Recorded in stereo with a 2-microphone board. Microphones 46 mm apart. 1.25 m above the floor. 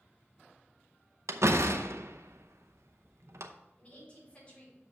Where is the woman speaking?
30° left (ahead or behind), 4.5 m.